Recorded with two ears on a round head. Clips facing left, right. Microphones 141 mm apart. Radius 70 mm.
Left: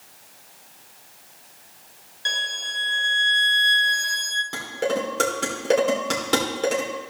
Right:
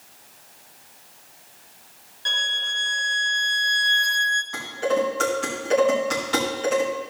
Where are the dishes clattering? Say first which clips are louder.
Right 2 dB; 70° left (ahead or behind), 3 m.